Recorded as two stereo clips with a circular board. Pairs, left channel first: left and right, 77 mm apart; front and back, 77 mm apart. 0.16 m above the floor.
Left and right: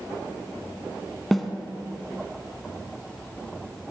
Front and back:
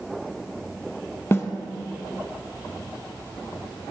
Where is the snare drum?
5° left, 0.7 m.